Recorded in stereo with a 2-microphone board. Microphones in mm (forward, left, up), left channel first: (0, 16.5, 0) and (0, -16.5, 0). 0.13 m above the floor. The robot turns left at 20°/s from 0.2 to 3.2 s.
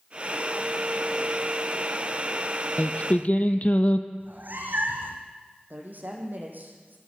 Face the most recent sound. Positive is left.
turn(degrees=-60)  # may be behind; listen again after turning